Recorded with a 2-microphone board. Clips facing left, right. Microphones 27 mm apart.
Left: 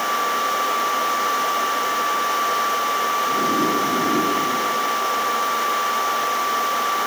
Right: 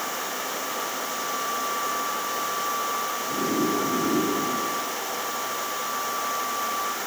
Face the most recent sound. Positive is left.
No sound to turn to.